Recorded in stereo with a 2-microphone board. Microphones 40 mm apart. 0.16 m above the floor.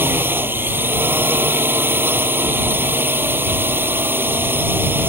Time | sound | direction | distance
0.0 | a drone | 65° right (ahead or behind) | ?